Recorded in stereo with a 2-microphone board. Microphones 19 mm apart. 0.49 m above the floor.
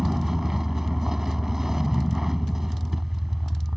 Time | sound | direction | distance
0.0 | a vehicle | 20° right (ahead or behind) | ?